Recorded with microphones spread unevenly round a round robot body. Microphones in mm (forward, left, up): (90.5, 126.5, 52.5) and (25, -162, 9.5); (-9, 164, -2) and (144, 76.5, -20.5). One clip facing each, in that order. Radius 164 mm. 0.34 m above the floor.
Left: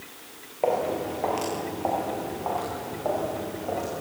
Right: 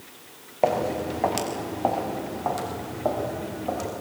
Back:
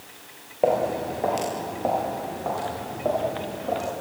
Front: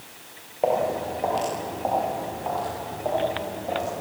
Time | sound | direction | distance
0.6 | footsteps | 145° right | 4.5 m